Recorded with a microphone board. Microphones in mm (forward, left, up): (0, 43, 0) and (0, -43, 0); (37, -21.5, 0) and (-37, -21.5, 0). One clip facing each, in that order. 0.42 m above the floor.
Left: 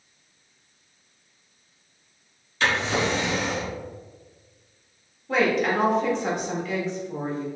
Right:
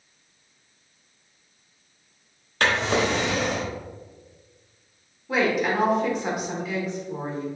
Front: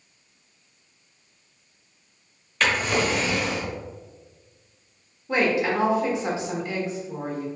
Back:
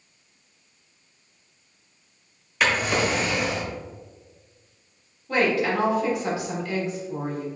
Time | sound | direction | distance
2.6 | a drawer | 100° right | 1.0 m
5.3 | a woman speaking | 15° right | 1.4 m